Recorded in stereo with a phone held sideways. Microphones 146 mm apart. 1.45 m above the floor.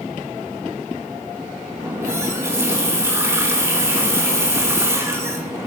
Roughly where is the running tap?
Centre.